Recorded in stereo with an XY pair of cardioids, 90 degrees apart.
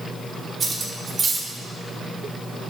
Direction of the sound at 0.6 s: 45° right.